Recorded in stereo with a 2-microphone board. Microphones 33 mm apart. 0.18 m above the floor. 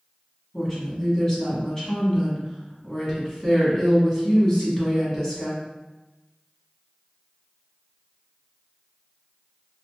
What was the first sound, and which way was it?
A woman speaking, 20° left (ahead or behind).